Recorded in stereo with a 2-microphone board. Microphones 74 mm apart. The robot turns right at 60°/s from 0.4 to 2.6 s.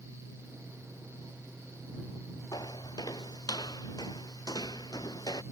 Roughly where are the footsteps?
Left.